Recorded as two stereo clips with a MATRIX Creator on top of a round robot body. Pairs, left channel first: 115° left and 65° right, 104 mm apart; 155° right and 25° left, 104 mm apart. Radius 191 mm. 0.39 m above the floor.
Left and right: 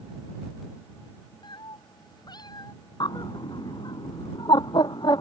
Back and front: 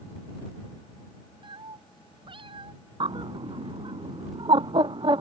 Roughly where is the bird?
Ahead left.